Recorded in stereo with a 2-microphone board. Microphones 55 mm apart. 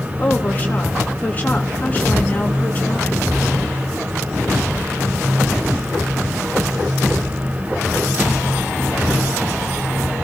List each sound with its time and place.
0.2 s a woman speaking: 25° left (ahead or behind), 3.5 m